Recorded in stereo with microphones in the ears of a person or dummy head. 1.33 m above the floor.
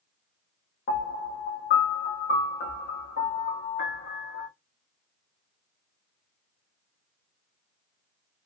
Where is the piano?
50° left (ahead or behind), 0.8 m.